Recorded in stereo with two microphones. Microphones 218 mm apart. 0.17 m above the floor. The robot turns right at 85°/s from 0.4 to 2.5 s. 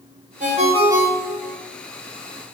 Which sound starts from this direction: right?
A ringtone, at 0.4 s.